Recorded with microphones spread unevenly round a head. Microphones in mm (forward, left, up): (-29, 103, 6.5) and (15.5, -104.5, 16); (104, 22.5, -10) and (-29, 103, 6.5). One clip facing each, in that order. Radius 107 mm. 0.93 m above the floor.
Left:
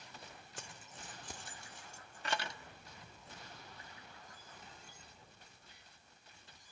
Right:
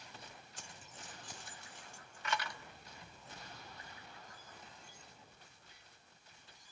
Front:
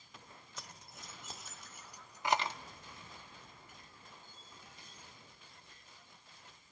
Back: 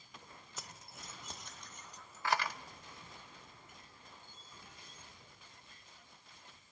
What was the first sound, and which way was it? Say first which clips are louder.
Keys jangling: left 4 dB, back 1 dB; 60° left.